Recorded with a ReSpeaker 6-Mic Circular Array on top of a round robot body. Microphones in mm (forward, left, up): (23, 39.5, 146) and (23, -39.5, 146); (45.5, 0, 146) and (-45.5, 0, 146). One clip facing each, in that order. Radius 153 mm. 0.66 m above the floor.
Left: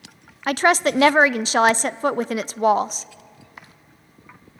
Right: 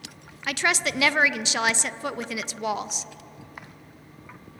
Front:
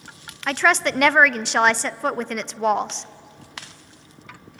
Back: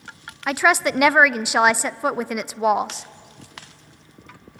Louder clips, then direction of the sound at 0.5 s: Left 8 dB, back 1 dB; 100° left.